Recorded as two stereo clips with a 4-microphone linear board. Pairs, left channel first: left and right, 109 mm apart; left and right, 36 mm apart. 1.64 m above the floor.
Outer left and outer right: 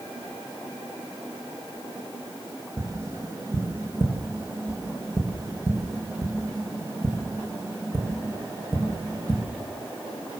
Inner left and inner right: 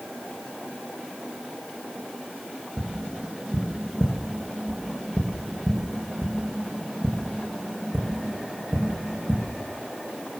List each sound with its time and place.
2.8 s tapping: 25° right (ahead or behind), 3.5 m